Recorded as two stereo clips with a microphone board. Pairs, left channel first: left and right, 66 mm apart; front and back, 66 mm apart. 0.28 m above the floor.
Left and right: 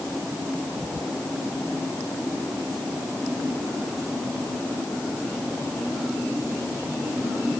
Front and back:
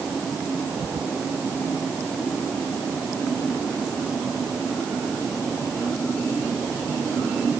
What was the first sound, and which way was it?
Only background noise.